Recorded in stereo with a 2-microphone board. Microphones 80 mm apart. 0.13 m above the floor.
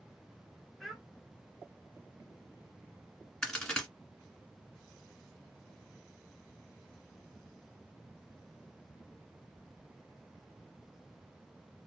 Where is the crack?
10° left (ahead or behind), 1.3 m.